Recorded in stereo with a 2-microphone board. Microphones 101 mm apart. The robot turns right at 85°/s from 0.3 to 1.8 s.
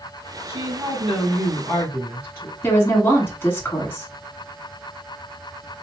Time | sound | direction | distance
0.5 | a woman speaking | 60° right | 1.5 m
2.6 | a woman speaking | 20° left (ahead or behind) | 1.5 m